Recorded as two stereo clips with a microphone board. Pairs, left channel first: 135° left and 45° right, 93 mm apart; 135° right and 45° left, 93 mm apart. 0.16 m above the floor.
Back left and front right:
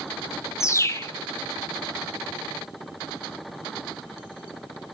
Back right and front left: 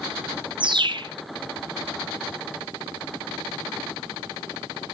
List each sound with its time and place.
0.6 s a bird: 75° left, 1.2 m